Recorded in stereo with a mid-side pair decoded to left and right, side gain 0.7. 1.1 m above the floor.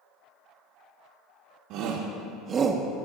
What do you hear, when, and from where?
1.7 s a shout: 70° right, 1.1 m; by 3.0 s 5° right, 0.7 m